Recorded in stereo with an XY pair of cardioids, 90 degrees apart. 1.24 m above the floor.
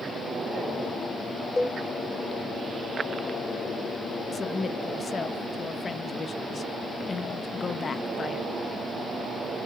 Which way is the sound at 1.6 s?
20° left.